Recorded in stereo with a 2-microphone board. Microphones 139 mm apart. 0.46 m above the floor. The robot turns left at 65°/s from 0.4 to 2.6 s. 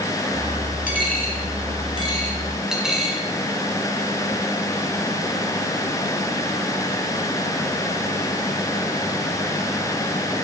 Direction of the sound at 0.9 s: 70° left (ahead or behind).